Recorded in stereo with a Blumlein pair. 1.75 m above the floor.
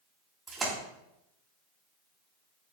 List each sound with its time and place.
0.5 s a splash: 20° right, 3.5 m